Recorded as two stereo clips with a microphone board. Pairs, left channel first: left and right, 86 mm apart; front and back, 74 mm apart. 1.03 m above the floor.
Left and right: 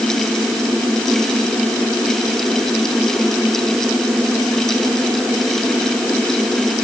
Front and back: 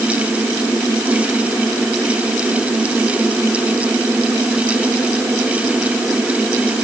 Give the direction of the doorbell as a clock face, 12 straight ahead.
No doorbell in this recording.